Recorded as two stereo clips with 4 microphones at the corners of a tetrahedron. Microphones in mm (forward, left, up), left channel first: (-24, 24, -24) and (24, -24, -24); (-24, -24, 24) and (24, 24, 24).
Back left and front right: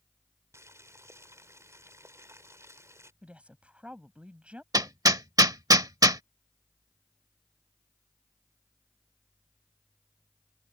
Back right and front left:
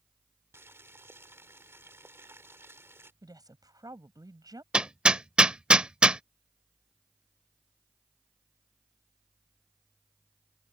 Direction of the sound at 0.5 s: 5° right.